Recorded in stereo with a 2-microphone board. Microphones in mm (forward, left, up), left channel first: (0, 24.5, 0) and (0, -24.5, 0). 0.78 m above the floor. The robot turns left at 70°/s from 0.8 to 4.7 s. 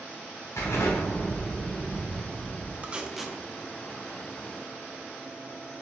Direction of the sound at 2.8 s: 30° right (ahead or behind).